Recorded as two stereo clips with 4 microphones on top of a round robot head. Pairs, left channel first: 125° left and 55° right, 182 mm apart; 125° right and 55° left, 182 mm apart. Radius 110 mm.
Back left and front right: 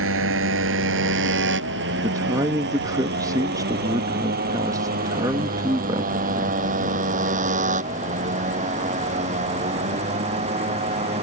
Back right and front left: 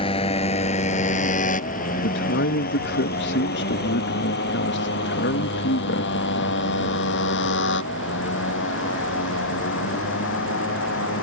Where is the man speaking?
125° right.